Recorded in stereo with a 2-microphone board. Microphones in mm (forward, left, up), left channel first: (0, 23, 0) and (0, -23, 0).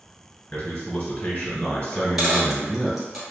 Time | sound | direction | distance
0.5 | a man speaking | 30° left (ahead or behind) | 1.7 m
1.9 | a dropped coin | 5° right (ahead or behind) | 1.6 m